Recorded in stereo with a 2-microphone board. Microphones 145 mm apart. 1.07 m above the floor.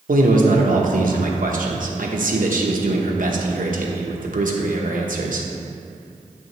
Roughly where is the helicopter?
I don't hear a helicopter.